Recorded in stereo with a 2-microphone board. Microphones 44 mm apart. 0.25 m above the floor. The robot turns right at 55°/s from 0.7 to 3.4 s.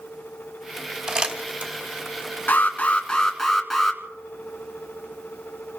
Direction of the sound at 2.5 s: 125° left.